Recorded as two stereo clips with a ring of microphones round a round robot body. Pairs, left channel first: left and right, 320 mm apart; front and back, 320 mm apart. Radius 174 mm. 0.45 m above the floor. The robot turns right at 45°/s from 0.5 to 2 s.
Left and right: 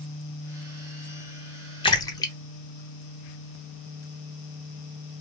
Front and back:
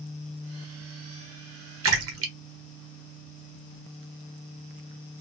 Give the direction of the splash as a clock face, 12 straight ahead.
7 o'clock.